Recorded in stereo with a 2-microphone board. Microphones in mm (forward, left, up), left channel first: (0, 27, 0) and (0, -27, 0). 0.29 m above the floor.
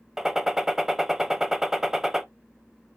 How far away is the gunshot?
About 0.8 m.